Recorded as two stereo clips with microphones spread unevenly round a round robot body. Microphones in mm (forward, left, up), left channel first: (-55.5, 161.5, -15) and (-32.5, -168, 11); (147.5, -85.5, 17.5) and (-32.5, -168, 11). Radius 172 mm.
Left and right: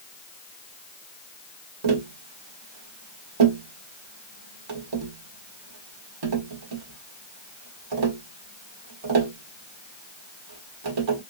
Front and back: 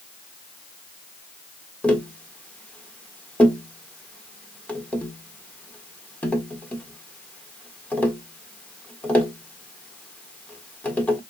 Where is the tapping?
60° right, 1.4 m.